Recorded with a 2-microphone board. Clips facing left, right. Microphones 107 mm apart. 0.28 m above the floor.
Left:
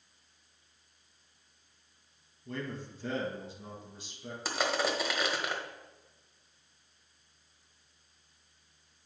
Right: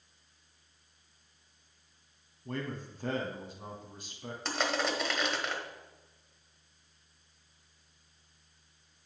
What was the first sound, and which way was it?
A man speaking, 55° right (ahead or behind).